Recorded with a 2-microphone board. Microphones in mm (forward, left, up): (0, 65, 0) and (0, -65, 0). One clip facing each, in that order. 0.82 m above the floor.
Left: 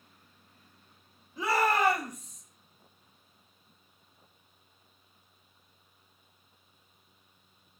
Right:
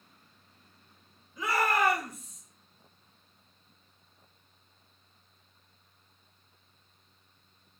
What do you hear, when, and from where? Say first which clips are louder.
1.4 s a shout: left 1 dB; 30° left (ahead or behind), 1.4 m; by 2.4 s 5° left (ahead or behind), 1.0 m